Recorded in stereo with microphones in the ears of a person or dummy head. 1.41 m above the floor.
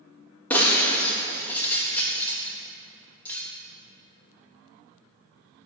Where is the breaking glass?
10° left (ahead or behind), 1.1 m.